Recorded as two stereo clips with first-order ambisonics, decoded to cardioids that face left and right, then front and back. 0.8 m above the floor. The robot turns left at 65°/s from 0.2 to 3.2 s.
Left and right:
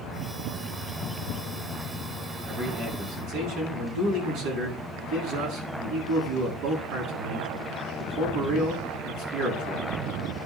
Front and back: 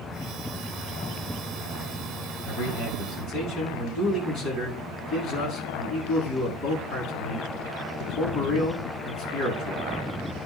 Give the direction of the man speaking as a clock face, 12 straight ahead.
12 o'clock.